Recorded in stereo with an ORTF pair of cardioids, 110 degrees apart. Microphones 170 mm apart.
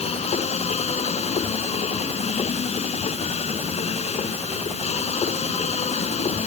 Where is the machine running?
40° left.